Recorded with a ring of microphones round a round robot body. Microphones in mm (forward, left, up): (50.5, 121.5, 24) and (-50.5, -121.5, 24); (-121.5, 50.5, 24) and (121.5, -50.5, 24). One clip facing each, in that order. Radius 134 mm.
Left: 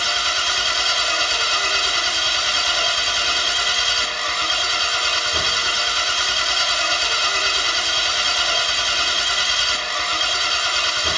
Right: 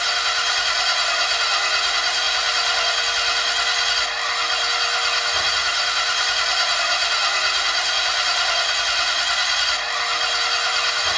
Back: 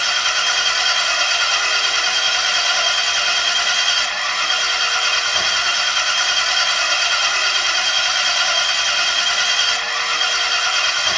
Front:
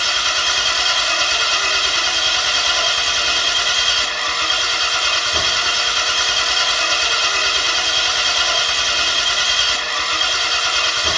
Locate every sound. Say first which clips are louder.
0.0 s an engine running: left 1 dB, front 1 dB; 20° left, 0.9 m